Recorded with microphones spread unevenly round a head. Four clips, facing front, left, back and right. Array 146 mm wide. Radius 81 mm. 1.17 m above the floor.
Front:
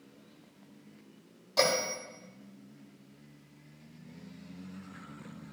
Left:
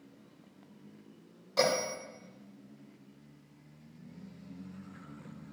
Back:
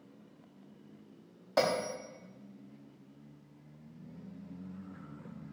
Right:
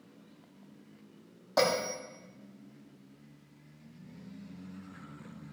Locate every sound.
1.6 s a bell: 145° right, 5.5 m